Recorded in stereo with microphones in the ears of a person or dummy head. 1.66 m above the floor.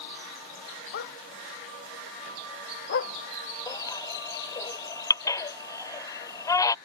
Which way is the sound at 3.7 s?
20° left (ahead or behind).